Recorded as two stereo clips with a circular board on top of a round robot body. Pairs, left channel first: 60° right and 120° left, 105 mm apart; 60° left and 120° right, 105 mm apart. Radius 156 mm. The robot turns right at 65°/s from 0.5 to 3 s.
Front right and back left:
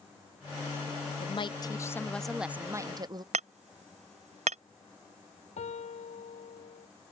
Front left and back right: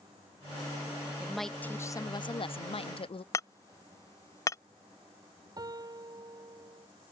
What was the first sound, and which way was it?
A woman speaking, 40° right.